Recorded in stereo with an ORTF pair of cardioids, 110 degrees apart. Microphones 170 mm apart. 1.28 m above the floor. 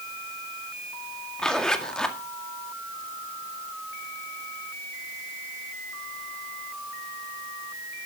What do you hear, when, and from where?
1.4 s a zipper: 5° left, 2.0 m